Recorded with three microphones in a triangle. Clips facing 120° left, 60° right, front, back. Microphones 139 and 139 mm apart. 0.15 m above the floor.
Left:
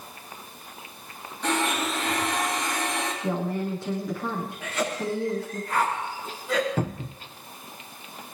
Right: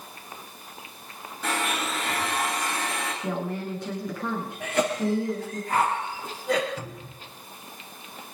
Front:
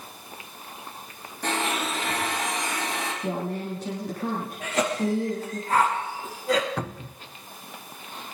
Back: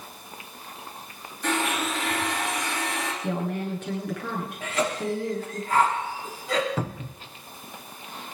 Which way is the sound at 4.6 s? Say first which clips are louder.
Right 5 dB, front 2 dB; 35° right.